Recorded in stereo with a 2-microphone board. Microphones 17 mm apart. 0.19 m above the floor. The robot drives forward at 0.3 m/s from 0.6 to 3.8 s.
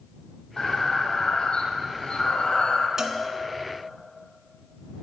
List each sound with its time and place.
0.6 s breathing: 60° left (ahead or behind), 2 m; by 2.9 s 75° left (ahead or behind), 1.9 m
3.0 s a cowbell: 30° right (ahead or behind), 1.4 m